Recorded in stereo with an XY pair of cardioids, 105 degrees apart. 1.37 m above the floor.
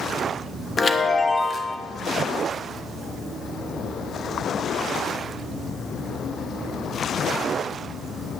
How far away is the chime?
About 1.0 m.